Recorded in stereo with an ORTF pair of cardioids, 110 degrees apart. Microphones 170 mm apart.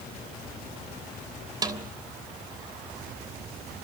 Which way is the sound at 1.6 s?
25° right.